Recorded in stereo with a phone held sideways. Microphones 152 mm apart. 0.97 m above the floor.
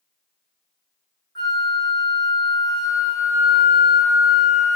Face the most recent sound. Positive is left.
turn(degrees=30)  # may be behind; listen again after turning